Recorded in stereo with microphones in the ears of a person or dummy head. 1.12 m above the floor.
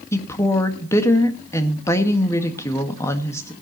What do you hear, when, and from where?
0.1 s a woman speaking: 15° left (ahead or behind), 1.6 m